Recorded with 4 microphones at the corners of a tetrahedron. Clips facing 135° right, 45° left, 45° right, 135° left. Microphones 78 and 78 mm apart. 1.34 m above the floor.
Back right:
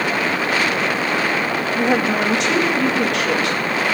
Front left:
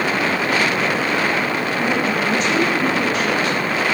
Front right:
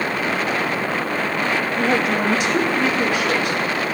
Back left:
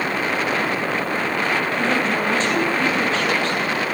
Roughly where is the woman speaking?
Behind right.